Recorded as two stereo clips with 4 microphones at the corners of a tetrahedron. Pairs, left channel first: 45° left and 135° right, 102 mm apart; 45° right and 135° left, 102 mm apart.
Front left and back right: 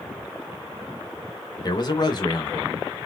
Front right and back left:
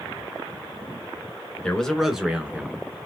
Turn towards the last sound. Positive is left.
turn(degrees=70)